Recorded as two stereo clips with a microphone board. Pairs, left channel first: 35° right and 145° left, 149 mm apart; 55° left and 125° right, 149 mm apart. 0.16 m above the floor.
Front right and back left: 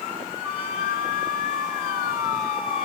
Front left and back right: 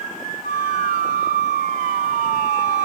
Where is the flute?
125° right, 3.5 m.